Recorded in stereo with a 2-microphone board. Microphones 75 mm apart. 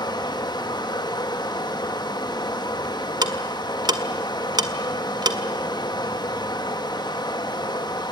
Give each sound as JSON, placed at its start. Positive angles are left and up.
{"t": 0.0, "sound": "running water", "side_deg": 80, "distance_m": 1.8}
{"t": 3.2, "sound": "ticking", "side_deg": -70, "distance_m": 1.6}